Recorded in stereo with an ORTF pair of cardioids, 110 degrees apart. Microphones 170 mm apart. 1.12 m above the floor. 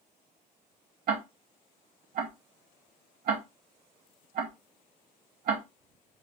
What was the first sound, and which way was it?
Ticking, 65° right.